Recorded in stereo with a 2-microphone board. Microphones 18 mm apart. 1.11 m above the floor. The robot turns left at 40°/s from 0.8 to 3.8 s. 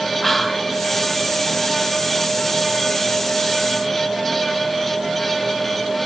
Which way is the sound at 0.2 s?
10° left (ahead or behind).